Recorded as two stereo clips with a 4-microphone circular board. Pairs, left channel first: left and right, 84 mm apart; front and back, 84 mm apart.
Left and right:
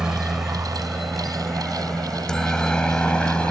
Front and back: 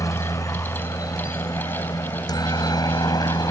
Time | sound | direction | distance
0.0 | a helicopter | 10° right | ?